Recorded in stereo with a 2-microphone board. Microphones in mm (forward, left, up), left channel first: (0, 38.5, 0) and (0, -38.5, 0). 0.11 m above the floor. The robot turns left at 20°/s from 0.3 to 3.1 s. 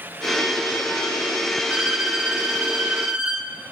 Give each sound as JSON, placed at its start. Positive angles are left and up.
{"t": 1.7, "sound": "a violin", "side_deg": -15, "distance_m": 0.9}